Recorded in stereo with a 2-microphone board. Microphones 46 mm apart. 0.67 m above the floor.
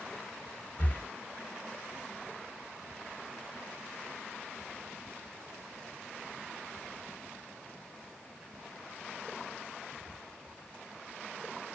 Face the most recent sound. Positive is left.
turn(degrees=40)  # may be behind; listen again after turning